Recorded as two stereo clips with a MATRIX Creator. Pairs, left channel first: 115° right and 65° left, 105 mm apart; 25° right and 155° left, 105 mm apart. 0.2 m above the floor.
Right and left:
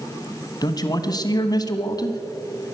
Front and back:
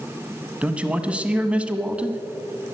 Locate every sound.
0.6 s a man speaking: 130° right, 1.2 m